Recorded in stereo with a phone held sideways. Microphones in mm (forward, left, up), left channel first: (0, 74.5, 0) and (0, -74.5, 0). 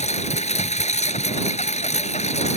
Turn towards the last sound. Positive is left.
turn(degrees=50)  # may be behind; listen again after turning